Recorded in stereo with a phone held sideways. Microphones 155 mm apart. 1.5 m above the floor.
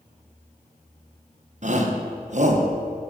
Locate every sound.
1.6 s a shout: 50° right (ahead or behind), 1.3 m